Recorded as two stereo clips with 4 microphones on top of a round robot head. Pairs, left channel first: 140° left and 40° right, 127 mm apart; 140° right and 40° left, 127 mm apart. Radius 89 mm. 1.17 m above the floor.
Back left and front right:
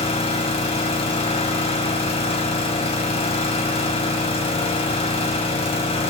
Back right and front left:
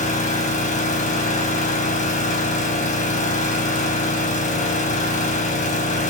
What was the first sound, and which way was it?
An engine running, 175° right.